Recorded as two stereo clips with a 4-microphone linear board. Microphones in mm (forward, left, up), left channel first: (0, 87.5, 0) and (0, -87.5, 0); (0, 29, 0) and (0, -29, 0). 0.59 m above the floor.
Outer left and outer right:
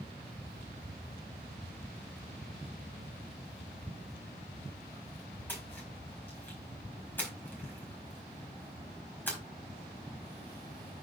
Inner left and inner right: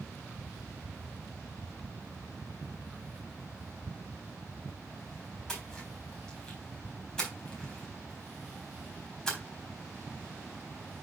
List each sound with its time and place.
5.5 s a splash: 10° left (ahead or behind), 4 m